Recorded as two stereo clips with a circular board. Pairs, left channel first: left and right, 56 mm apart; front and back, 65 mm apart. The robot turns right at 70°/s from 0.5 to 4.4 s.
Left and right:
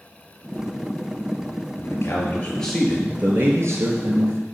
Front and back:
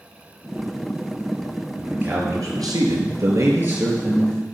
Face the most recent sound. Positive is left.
turn(degrees=-70)